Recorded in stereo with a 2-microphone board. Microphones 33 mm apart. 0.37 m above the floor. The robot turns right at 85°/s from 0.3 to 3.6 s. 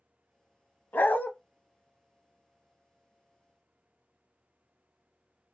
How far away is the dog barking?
About 0.7 m.